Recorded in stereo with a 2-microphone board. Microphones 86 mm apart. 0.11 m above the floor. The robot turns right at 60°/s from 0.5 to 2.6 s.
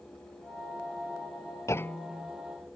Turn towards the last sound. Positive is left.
turn(degrees=-160)